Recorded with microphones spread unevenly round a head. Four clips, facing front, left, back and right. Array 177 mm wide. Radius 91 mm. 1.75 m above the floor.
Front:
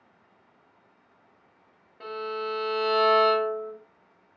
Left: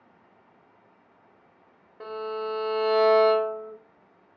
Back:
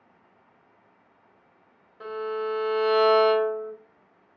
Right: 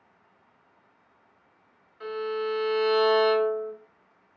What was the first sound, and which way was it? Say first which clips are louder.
A violin: right 2 dB, back 3 dB; 90° left.